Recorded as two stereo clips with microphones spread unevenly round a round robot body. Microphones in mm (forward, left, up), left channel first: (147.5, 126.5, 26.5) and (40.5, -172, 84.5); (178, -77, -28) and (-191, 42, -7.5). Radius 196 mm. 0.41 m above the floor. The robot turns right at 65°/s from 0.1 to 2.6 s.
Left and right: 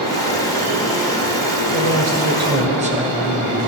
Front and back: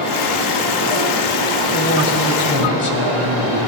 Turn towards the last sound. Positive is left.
turn(degrees=-35)